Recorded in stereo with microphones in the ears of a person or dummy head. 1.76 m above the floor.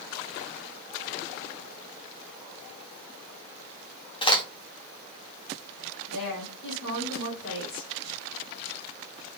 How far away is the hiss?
No hiss in this recording.